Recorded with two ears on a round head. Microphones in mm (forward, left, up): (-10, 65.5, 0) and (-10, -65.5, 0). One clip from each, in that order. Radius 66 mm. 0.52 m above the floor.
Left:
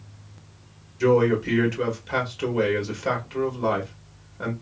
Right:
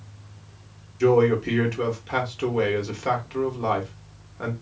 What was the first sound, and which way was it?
A man speaking, 10° right (ahead or behind).